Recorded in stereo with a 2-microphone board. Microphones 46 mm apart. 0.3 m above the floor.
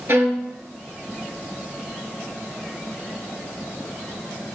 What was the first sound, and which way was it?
A violin, 60° right (ahead or behind).